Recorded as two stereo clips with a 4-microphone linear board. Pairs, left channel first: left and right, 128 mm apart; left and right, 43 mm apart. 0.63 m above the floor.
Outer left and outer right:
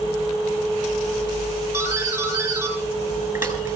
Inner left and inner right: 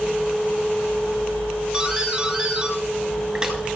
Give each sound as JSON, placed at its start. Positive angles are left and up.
{"t": 1.7, "sound": "a doorbell", "side_deg": -20, "distance_m": 5.5}